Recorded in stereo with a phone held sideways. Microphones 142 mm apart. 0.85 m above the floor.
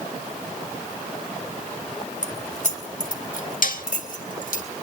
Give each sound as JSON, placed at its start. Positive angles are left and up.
{"t": 2.2, "sound": "keys jangling", "side_deg": 60, "distance_m": 2.0}
{"t": 3.6, "sound": "dishes clattering", "side_deg": 70, "distance_m": 1.4}